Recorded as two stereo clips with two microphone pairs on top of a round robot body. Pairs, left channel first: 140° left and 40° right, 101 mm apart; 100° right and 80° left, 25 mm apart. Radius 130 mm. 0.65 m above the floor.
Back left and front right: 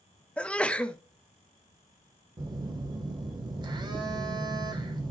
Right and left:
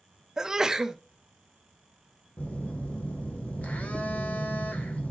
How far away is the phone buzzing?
About 1.2 m.